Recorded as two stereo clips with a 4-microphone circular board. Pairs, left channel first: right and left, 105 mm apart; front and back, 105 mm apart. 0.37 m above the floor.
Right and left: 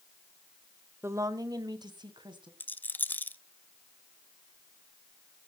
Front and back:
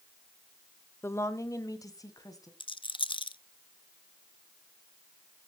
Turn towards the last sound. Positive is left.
turn(degrees=-20)